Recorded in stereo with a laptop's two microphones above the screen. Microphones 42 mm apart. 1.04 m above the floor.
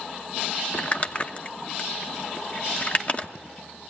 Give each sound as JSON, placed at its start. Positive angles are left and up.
{"t": 0.7, "sound": "crumpling", "side_deg": 35, "distance_m": 1.0}